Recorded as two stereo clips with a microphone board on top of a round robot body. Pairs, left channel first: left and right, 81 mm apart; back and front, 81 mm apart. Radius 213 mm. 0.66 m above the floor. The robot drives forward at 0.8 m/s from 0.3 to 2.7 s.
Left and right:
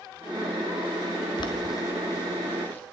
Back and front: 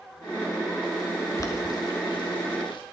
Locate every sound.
1.4 s boiling: 120° left, 0.7 m; by 2.8 s 160° left, 1.5 m